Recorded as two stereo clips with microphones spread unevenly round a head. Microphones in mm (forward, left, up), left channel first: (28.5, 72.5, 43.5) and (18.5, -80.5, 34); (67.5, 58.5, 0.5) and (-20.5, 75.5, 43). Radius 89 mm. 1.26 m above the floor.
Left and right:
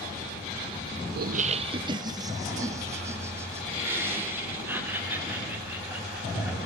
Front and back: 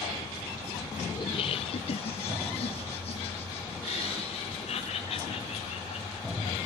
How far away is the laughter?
About 0.6 m.